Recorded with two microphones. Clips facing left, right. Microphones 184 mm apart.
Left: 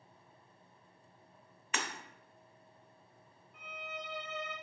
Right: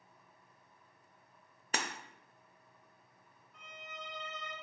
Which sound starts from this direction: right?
Breaking glass, at 1.7 s.